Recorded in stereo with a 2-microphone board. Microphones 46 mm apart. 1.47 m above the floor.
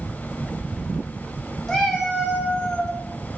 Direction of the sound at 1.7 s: 10° left (ahead or behind).